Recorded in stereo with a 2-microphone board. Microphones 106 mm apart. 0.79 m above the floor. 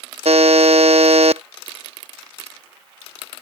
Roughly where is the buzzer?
Right.